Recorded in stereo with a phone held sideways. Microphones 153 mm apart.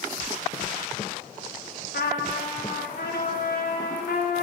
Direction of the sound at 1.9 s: 85° left.